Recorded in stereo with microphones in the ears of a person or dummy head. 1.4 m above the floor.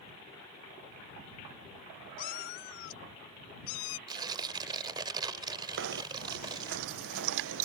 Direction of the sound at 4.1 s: 25° right (ahead or behind).